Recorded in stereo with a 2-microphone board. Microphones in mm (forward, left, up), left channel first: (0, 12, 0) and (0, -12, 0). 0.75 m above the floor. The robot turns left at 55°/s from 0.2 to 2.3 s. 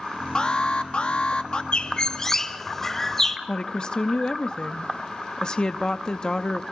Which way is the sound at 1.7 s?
50° left (ahead or behind).